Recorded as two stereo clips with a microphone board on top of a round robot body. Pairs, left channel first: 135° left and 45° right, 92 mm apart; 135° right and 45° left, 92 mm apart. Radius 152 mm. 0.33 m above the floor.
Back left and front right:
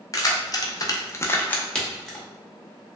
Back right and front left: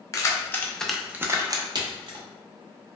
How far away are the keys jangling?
About 0.8 m.